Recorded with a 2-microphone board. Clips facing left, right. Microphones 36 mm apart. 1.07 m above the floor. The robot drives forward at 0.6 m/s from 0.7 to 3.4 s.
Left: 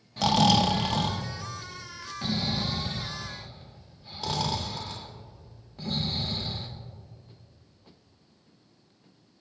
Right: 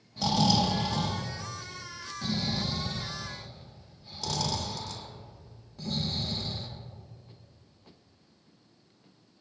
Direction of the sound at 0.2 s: 75° left (ahead or behind).